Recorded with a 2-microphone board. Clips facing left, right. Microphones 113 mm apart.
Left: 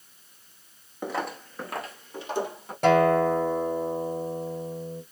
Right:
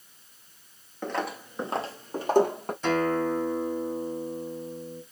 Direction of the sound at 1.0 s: 10° left (ahead or behind).